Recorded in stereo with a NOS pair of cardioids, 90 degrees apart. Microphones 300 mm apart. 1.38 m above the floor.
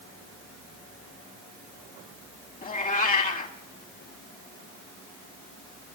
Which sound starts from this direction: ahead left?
A cat meowing, at 2.6 s.